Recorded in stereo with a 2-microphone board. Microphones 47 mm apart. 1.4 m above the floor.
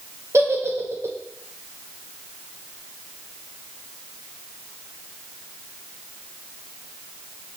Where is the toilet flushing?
I don't hear a toilet flushing.